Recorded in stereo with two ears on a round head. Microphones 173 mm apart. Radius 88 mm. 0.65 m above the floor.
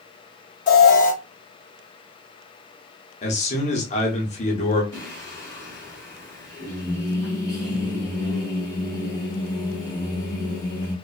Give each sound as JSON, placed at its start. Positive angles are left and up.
{"t": 0.7, "sound": "an alarm", "side_deg": 40, "distance_m": 0.8}
{"t": 3.2, "sound": "a man speaking", "side_deg": 35, "distance_m": 0.9}
{"t": 4.9, "sound": "singing", "side_deg": 15, "distance_m": 1.4}